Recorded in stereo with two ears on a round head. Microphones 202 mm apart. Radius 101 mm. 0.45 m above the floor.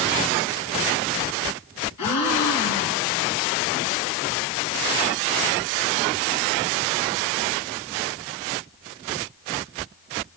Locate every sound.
2.0 s a gasp: 85° left, 2.5 m